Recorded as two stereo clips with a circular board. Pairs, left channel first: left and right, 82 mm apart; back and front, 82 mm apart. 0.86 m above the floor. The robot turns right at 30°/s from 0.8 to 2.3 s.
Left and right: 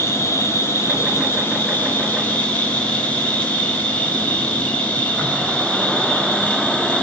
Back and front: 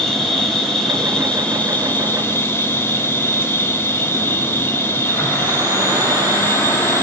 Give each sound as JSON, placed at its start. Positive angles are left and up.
{"t": 0.0, "sound": "an insect", "azimuth_deg": 105, "distance_m": 0.7}